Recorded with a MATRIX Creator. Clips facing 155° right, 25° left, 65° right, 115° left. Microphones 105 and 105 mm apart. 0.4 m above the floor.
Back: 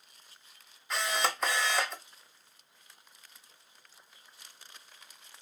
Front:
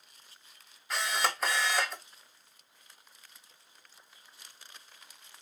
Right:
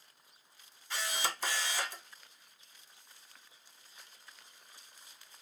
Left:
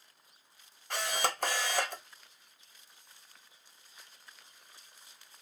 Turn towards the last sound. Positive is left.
turn(degrees=110)